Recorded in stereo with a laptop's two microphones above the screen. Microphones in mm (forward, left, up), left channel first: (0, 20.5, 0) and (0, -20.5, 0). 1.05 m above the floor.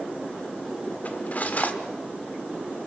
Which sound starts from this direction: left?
Cutlery clinking, at 1.1 s.